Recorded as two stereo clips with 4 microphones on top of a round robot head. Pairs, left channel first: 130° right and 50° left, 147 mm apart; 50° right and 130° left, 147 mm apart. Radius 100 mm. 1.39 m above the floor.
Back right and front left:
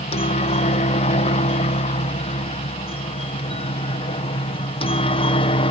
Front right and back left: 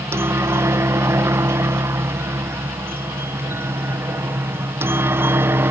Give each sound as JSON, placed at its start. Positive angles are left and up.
{"t": 0.0, "sound": "a helicopter", "azimuth_deg": -160}